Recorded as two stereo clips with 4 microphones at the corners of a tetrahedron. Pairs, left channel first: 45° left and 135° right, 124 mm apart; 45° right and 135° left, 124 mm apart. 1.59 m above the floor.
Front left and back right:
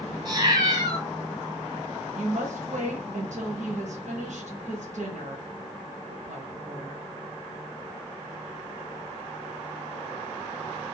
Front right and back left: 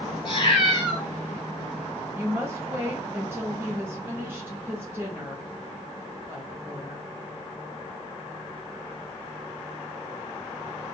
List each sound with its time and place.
0.2 s a cat meowing: 85° right, 2.5 m
2.1 s a woman speaking: 155° right, 1.0 m